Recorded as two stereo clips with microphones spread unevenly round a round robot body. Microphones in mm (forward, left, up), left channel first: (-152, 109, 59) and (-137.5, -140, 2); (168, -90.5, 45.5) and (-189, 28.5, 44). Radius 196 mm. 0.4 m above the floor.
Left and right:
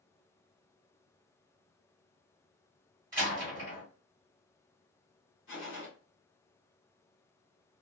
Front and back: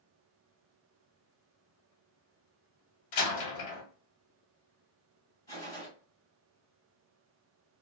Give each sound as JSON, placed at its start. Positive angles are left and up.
{"t": 3.1, "sound": "a door slam", "azimuth_deg": -25, "distance_m": 1.1}
{"t": 5.5, "sound": "a gunshot", "azimuth_deg": 65, "distance_m": 2.0}